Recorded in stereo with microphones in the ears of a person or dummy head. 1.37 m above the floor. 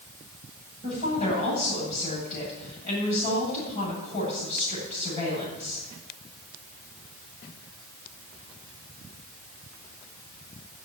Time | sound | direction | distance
0.8 | a woman speaking | 45° left (ahead or behind) | 8 m